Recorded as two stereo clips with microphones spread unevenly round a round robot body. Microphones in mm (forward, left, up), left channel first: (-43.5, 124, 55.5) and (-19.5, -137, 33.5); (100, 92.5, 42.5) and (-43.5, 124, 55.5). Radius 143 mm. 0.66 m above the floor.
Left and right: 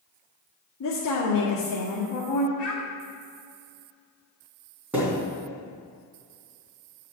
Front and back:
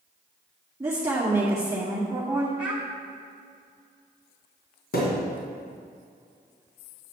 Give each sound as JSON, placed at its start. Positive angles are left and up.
{"t": 0.8, "sound": "a woman speaking", "azimuth_deg": 95, "distance_m": 2.0}
{"t": 2.6, "sound": "a child speaking", "azimuth_deg": 85, "distance_m": 2.5}
{"t": 4.9, "sound": "a thud", "azimuth_deg": 0, "distance_m": 2.5}